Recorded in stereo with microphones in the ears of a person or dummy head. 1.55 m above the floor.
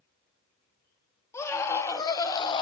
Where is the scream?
15° left (ahead or behind), 3 m; by 2.6 s 30° left (ahead or behind), 1.5 m.